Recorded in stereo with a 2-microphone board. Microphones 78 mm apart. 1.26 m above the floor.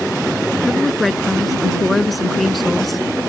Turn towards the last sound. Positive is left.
turn(degrees=0)  # may be behind; listen again after turning